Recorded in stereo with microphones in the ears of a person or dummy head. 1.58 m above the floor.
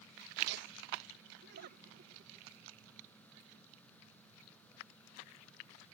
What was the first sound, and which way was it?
Laughter, 70° right (ahead or behind).